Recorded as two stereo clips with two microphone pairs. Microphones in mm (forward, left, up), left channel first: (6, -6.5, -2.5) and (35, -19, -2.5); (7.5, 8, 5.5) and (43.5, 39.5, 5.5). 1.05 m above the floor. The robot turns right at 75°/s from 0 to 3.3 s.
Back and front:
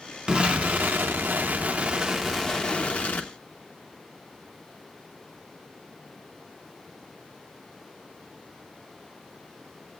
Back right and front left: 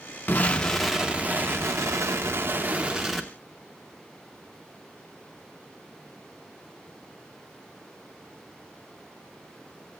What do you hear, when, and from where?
0.3 s an explosion: 85° right, 0.9 m; by 3.3 s 140° left, 0.9 m